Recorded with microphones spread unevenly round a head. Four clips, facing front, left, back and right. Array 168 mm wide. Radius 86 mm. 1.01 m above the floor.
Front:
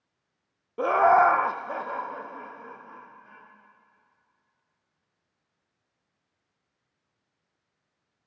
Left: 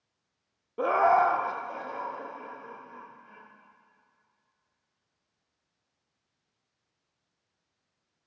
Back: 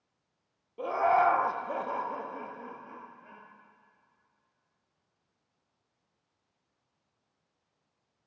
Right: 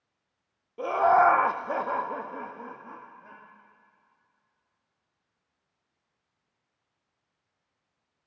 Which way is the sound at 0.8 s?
25° left.